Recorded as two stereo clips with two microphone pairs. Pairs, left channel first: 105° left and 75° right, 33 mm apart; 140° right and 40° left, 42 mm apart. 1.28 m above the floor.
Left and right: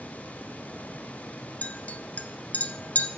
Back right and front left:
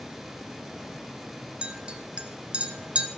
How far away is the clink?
About 0.9 m.